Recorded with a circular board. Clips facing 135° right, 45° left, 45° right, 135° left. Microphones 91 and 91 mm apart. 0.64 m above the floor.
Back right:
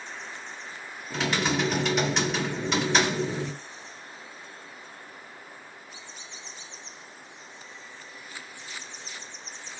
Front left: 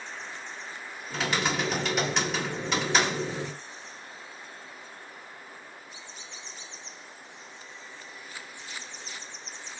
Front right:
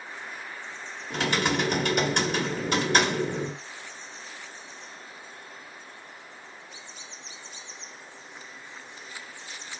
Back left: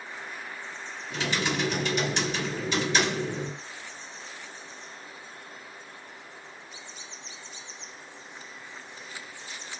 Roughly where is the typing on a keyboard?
Ahead right.